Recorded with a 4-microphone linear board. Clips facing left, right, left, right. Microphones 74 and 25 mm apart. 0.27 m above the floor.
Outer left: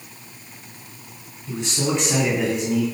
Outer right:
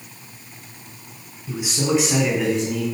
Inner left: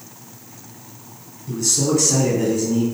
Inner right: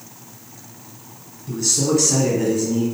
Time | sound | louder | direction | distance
1.5 | a man speaking | outer right 2 dB, even | 5° right (ahead or behind) | 2 m